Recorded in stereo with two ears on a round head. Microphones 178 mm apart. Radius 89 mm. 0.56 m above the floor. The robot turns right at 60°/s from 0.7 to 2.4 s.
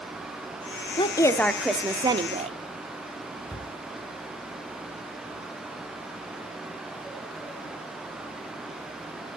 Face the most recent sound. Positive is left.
turn(degrees=15)  # may be behind; listen again after turning